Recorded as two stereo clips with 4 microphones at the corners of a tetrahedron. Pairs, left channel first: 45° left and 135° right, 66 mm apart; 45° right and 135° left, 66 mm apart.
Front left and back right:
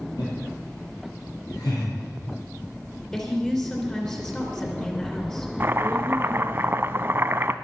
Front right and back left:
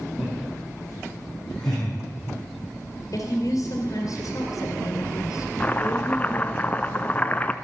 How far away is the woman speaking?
About 3 m.